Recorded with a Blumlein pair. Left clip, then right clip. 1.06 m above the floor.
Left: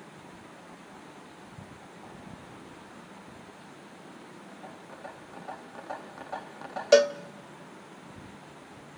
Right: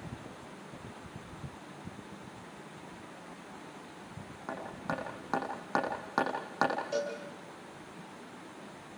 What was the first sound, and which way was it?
Hammering, 50° right.